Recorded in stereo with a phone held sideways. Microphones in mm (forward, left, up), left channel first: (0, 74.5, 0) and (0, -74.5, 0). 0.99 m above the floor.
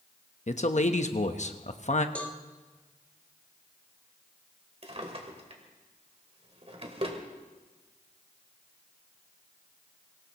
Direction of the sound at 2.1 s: 10° left (ahead or behind).